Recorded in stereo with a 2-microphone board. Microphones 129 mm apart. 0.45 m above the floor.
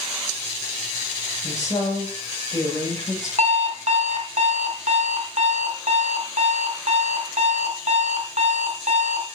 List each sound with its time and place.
1.4 s a woman speaking: 30° left (ahead or behind), 7 m
3.4 s an alarm clock: 60° right (ahead or behind), 1.5 m